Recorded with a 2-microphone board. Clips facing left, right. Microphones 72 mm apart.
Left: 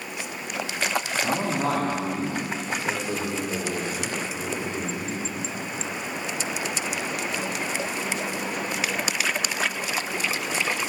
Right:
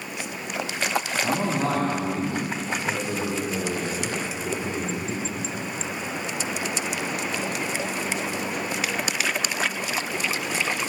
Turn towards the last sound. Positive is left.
turn(degrees=25)  # may be behind; listen again after turning